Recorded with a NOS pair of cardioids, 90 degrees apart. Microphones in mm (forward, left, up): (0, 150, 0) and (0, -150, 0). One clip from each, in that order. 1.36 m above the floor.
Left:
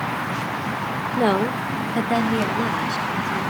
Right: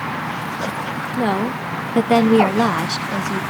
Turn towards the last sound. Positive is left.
turn(degrees=-70)